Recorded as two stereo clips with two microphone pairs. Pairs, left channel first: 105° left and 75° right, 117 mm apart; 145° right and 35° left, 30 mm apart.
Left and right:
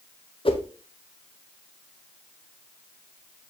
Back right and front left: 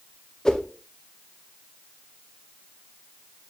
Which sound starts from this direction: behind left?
A whoosh, at 0.5 s.